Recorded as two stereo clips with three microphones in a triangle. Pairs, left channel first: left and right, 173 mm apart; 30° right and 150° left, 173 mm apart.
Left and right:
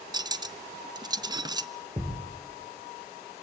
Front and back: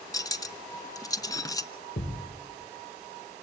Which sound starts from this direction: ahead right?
Cutlery clinking, at 0.1 s.